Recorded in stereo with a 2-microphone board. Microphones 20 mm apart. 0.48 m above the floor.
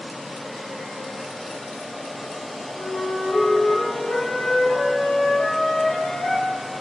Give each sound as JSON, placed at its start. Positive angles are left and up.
{"t": 2.7, "sound": "a flute", "side_deg": 65, "distance_m": 6.0}